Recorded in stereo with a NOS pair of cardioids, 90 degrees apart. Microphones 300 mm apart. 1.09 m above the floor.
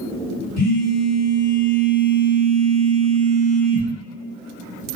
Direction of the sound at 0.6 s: 55° left.